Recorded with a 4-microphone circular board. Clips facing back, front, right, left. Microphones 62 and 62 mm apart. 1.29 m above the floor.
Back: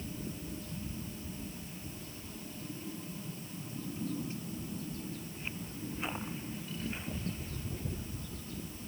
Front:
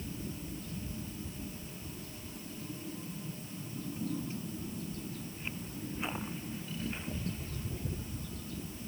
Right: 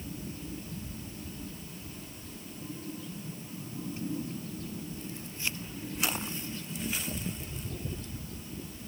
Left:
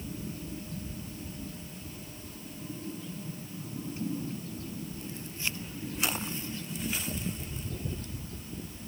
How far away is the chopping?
No chopping in this recording.